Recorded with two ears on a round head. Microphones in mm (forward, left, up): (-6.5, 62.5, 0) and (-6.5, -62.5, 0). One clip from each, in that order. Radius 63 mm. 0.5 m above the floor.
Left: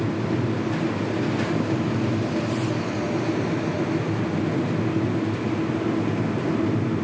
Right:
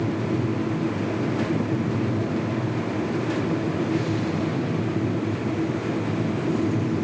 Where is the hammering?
I don't hear hammering.